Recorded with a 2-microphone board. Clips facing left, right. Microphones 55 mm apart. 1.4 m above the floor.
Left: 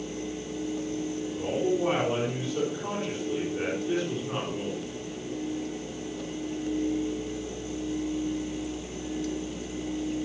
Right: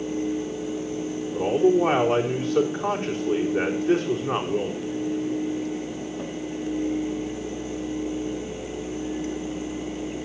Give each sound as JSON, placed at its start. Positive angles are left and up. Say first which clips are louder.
{"t": 1.3, "sound": "a man speaking", "louder": "right 9 dB", "side_deg": -55, "distance_m": 4.5}